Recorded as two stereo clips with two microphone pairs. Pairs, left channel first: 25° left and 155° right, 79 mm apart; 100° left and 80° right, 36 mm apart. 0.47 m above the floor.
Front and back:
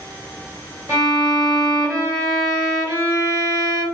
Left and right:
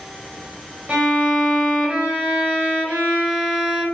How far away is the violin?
About 1.6 m.